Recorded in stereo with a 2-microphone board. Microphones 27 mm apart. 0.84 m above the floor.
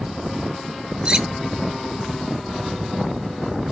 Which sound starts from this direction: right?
Cutlery clinking, at 1.1 s.